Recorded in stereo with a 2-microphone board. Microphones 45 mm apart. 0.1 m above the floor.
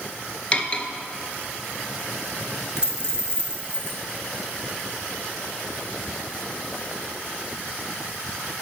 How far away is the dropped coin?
About 2.5 m.